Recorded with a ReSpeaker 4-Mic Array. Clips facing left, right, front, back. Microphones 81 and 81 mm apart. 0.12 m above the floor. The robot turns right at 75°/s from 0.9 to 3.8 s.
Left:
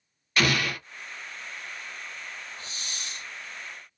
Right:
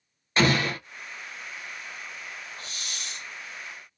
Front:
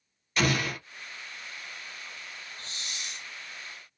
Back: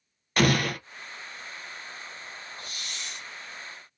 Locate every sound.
0.4 s an explosion: 150° right, 0.6 m
2.6 s a hiss: 45° left, 1.7 m; by 3.3 s 95° left, 1.7 m